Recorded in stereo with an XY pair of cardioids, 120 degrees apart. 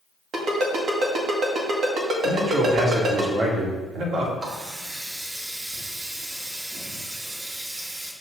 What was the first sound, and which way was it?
A ringtone, 65° right.